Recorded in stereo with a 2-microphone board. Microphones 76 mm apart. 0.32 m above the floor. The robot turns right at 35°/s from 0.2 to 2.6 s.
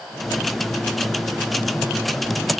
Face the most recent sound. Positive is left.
No sound to turn to.